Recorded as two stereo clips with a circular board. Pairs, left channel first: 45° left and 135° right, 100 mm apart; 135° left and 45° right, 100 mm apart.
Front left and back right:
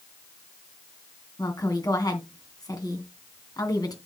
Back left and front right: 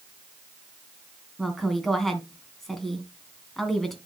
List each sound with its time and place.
1.4 s a woman speaking: 50° left, 1.9 m